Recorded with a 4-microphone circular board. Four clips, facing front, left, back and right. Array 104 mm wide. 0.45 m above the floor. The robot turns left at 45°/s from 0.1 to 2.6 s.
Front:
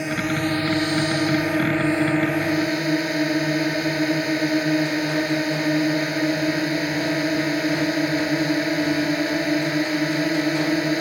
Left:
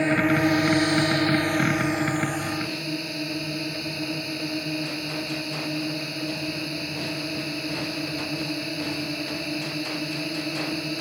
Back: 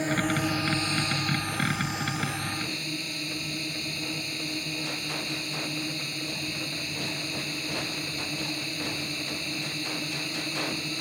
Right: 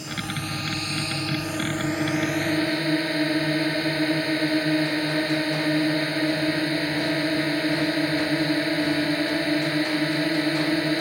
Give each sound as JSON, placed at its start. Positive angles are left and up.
{"t": 0.0, "sound": "a drone", "azimuth_deg": 85}